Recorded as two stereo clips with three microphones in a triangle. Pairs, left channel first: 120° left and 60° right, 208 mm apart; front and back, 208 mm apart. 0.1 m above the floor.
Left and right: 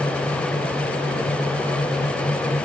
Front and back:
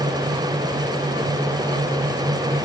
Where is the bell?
No bell in this recording.